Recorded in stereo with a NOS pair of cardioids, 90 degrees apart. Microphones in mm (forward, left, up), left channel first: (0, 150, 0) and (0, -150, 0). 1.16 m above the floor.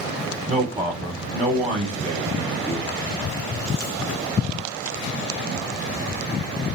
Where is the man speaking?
10° right, 0.9 m.